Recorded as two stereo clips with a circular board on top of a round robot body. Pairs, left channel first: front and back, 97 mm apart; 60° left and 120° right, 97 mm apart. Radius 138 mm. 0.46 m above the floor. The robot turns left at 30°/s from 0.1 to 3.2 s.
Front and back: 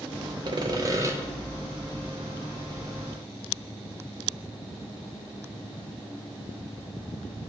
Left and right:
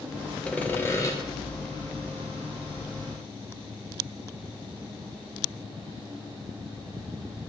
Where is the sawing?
140° left, 0.7 m; by 1.1 s 115° left, 0.7 m.